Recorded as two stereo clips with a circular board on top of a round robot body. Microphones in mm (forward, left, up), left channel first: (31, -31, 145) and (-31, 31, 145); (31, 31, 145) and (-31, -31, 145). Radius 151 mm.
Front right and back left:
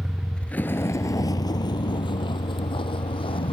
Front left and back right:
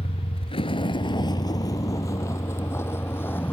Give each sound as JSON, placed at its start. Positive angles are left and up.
{"t": 0.0, "sound": "a vehicle", "azimuth_deg": 50}